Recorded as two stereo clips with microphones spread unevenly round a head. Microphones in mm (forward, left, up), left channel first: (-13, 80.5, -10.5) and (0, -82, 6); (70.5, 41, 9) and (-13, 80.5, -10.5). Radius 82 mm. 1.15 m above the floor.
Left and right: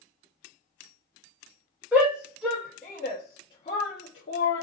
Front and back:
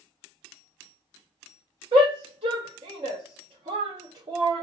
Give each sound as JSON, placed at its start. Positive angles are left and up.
{"t": 1.9, "sound": "a shout", "azimuth_deg": -170, "distance_m": 1.4}